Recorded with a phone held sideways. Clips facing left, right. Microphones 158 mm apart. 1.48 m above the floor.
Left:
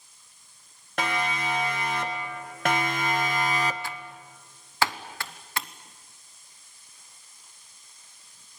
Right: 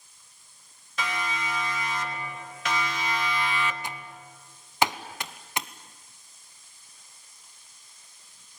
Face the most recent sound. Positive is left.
turn(degrees=-20)  # may be behind; listen again after turning